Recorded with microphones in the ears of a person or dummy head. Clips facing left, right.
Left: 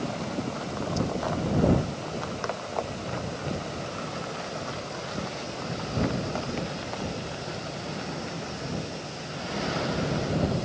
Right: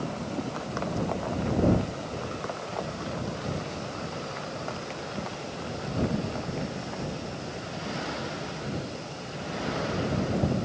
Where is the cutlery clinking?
I don't hear cutlery clinking.